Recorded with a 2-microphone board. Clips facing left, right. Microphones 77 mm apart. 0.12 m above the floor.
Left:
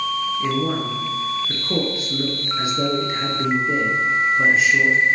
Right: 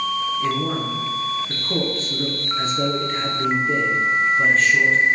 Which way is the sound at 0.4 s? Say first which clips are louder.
Left 1 dB; 10° left (ahead or behind).